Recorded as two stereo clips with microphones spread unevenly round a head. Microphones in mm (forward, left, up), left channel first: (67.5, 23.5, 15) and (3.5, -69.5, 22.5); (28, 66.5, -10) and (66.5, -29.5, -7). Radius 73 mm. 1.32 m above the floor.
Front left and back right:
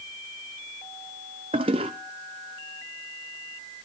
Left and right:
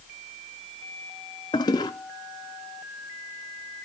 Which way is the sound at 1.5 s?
Straight behind.